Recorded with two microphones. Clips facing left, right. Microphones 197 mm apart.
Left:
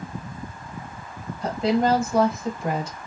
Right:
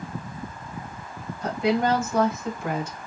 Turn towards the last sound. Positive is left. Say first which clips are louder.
# left 2 dB
turn(degrees=20)  # may be behind; listen again after turning